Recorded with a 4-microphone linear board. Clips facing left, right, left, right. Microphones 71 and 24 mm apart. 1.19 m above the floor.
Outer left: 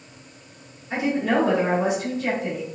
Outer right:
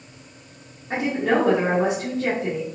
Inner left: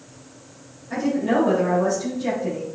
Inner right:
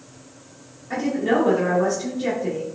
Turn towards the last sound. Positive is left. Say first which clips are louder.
# outer right 1 dB, even
turn(degrees=-45)  # may be behind; listen again after turning